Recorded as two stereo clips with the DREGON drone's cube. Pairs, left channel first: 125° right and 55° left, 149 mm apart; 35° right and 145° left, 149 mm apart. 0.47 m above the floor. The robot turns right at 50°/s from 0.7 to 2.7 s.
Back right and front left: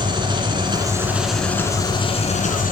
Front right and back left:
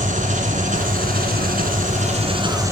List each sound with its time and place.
0.0 s an engine running: 115° left, 2 m; by 2.7 s 145° right, 2 m